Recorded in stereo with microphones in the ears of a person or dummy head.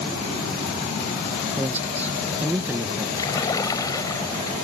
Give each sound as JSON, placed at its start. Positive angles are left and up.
{"t": 1.6, "sound": "a man speaking", "side_deg": -15}
{"t": 3.2, "sound": "a splash", "side_deg": 20}